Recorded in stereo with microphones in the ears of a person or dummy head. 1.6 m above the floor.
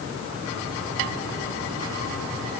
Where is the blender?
I don't hear a blender.